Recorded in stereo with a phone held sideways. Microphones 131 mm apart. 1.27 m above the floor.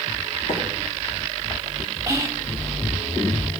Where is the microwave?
75° left (ahead or behind), 2.5 m.